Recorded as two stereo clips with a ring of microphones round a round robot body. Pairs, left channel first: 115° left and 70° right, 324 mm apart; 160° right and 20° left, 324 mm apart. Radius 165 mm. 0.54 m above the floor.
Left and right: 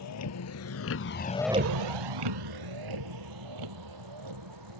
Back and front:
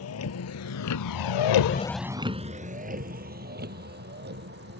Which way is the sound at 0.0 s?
155° left.